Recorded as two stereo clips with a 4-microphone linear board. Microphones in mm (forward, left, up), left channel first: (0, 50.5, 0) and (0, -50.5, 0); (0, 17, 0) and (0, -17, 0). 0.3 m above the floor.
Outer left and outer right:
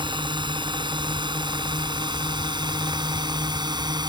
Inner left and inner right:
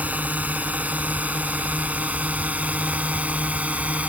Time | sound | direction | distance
0.0 | a drone | 50° right (ahead or behind) | ?